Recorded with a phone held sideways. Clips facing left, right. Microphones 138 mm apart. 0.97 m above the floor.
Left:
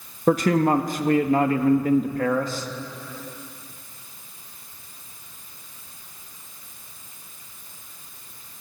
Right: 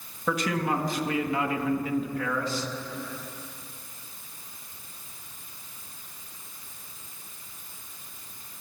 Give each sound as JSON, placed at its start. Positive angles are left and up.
{"t": 0.3, "sound": "a man speaking", "side_deg": 45, "distance_m": 1.6}